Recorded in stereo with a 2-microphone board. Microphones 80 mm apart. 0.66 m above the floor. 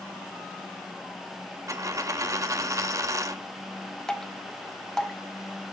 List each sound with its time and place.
1.7 s a dropped coin: 40° right (ahead or behind), 0.7 m
4.1 s dripping: 5° left (ahead or behind), 1.2 m